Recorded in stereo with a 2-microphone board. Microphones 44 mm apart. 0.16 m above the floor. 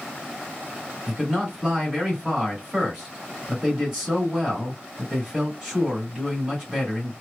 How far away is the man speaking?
About 2 m.